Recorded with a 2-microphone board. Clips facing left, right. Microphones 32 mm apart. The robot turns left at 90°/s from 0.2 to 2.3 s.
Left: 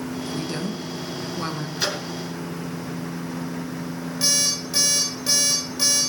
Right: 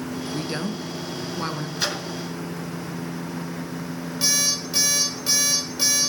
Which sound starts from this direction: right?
A woman speaking, at 0.2 s.